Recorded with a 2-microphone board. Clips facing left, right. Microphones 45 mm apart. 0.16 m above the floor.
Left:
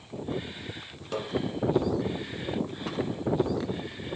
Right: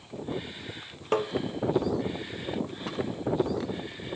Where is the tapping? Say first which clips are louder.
Right 7 dB; 40° right (ahead or behind), 0.6 m.